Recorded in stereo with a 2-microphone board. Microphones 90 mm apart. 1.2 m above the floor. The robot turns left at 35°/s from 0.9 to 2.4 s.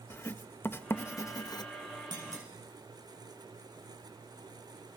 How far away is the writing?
About 1.0 m.